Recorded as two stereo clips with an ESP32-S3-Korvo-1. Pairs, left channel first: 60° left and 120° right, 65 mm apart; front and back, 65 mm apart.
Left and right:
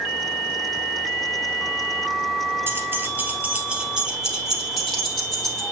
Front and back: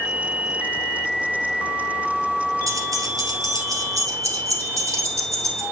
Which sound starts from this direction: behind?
Keys jangling, at 2.7 s.